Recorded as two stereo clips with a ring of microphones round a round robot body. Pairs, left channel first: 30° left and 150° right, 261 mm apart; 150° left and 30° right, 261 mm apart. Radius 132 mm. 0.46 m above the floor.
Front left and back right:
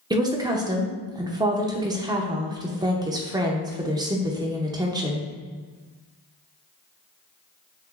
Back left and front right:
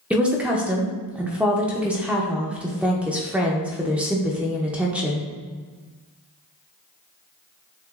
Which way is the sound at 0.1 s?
105° right.